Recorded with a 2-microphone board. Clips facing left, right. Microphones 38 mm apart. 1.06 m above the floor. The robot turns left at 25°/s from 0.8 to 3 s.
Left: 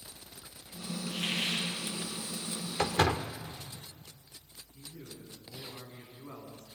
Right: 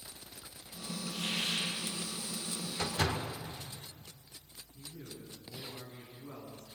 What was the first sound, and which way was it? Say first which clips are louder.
A hiss: left 2 dB; 70° left (ahead or behind).